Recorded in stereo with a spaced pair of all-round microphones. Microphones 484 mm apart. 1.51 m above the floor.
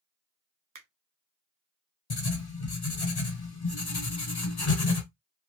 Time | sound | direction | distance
0.8 | a finger snap | 45° right (ahead or behind) | 0.6 m
2.1 | writing | 50° left (ahead or behind) | 0.7 m